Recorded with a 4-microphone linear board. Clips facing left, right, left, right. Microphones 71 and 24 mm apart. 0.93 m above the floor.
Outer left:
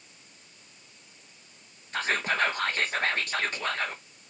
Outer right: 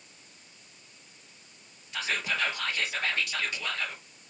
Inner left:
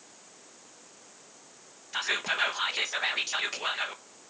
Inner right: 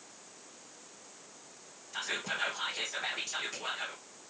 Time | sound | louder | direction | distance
1.9 | whispering | outer left 4 dB, inner left 7 dB | 40° left (ahead or behind) | 0.7 m